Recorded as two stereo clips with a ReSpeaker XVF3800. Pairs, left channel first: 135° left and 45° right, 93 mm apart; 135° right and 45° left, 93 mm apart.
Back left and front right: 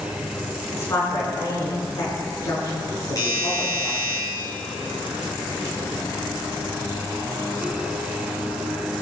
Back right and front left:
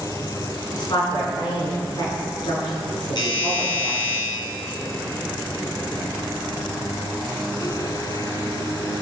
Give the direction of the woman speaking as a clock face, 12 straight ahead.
6 o'clock.